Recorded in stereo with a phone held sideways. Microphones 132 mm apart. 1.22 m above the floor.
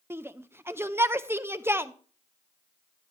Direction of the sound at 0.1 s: 20° right (ahead or behind).